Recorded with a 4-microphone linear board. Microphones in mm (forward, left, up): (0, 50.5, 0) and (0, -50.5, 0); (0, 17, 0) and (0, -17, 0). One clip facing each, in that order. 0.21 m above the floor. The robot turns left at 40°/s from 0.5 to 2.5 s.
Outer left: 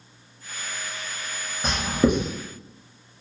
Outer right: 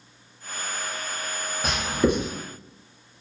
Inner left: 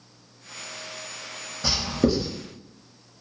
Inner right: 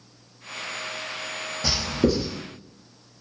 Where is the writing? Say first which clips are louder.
Outer left 2 dB, even; 5° right (ahead or behind), 1.1 m; by 2.3 s 20° left (ahead or behind), 1.1 m.